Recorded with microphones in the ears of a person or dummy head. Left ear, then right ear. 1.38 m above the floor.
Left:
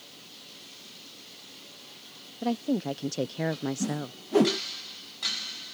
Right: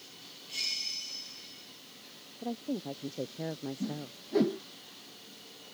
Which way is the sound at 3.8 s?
40° left (ahead or behind).